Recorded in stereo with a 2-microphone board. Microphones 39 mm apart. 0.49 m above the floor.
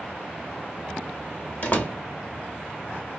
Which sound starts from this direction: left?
A door slam, at 1.6 s.